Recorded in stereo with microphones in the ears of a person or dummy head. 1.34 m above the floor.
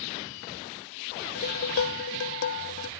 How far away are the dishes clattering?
About 0.6 m.